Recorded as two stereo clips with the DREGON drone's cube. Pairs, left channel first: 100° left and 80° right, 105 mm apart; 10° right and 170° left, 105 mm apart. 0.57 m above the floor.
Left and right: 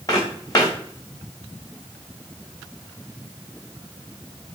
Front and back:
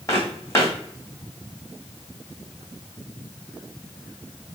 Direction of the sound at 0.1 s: 50° left.